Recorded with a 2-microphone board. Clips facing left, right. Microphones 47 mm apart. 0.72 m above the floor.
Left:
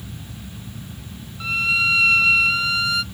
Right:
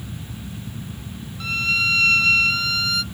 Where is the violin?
15° left (ahead or behind), 0.6 m.